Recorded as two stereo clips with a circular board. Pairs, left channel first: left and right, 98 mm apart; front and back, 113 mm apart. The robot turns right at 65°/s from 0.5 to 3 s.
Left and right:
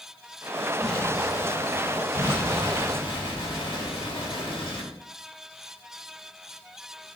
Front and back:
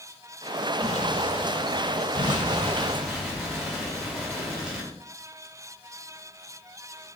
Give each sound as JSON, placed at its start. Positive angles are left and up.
{"t": 0.8, "sound": "an explosion", "azimuth_deg": 5, "distance_m": 0.8}
{"t": 2.1, "sound": "an explosion", "azimuth_deg": 30, "distance_m": 1.7}